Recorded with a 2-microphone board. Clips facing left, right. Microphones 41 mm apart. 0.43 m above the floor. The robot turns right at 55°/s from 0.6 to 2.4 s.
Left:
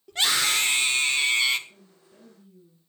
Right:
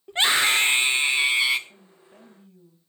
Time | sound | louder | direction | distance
0.1 | a scream | right 4 dB | 70° right | 1.4 m
1.7 | a woman speaking | right 3 dB | 125° right | 3 m